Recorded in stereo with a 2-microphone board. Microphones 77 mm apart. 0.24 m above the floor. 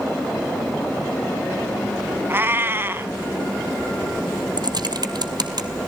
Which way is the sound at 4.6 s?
65° right (ahead or behind).